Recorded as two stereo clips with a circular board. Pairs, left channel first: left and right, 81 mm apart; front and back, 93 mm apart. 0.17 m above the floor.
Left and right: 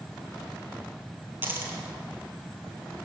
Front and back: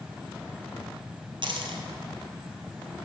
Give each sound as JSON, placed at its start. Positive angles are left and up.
{"t": 1.4, "sound": "a dropped coin", "azimuth_deg": -155, "distance_m": 1.4}